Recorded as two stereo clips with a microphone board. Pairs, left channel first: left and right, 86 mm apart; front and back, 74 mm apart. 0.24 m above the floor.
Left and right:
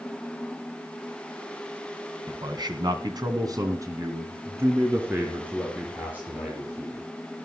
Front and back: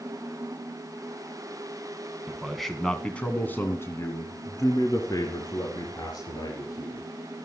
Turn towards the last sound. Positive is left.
turn(degrees=-15)